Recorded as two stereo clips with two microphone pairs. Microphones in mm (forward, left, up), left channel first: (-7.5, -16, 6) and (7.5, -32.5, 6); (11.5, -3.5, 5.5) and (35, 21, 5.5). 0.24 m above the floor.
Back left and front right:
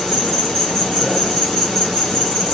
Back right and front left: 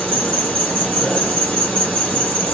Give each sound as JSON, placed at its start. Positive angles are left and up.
{"t": 0.0, "sound": "an insect", "azimuth_deg": -155, "distance_m": 1.7}